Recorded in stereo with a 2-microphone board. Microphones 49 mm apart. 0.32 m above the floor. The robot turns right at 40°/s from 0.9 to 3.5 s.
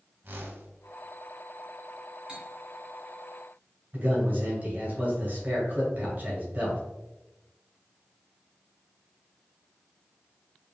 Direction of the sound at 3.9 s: 35° right (ahead or behind).